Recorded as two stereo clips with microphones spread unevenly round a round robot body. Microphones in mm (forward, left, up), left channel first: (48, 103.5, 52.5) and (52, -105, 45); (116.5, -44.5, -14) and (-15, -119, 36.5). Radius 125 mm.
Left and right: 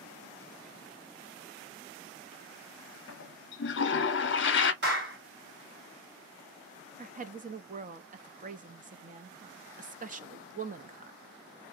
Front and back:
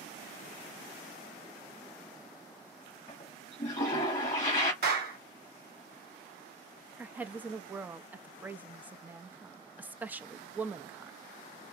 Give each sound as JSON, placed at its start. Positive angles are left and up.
{"t": 3.1, "sound": "a toilet flushing", "azimuth_deg": 80, "distance_m": 0.9}
{"t": 4.8, "sound": "a clap", "azimuth_deg": -130, "distance_m": 2.0}
{"t": 7.0, "sound": "a woman speaking", "azimuth_deg": -55, "distance_m": 0.7}